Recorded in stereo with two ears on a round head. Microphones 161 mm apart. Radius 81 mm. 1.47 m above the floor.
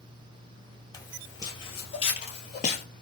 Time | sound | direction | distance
0.9 | footsteps | 20° left (ahead or behind) | 2.0 m